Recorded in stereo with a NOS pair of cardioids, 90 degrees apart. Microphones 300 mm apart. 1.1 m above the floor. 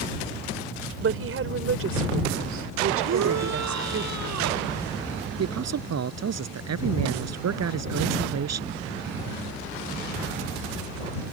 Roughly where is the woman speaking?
Ahead right.